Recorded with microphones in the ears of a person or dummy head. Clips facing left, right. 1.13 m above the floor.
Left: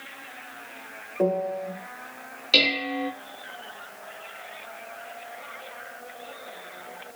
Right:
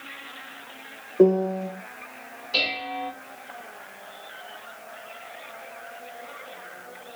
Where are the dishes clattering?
85° left, 1.2 m.